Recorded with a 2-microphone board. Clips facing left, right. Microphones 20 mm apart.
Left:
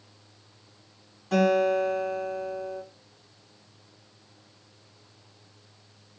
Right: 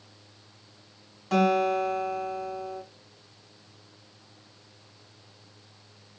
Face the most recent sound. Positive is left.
turn(degrees=-30)  # may be behind; listen again after turning